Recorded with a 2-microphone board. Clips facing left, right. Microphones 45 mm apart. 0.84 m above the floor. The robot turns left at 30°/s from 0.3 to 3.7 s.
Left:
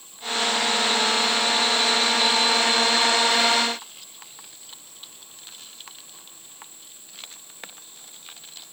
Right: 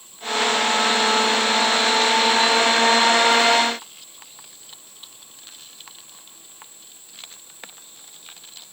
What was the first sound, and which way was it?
Only background noise.